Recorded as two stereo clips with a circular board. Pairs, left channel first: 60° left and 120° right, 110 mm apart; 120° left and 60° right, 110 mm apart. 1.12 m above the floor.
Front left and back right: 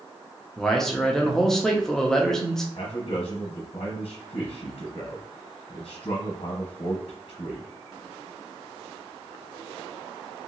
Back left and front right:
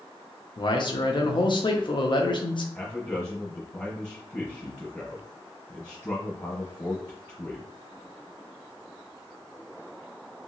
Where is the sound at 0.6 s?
145° left, 0.6 m.